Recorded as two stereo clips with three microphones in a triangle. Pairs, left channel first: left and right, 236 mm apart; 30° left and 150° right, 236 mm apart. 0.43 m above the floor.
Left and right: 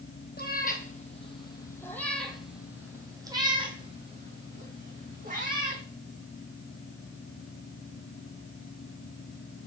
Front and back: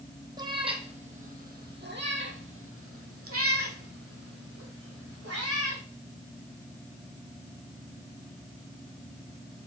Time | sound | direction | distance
0.4 | a cat meowing | 140° left | 1.5 m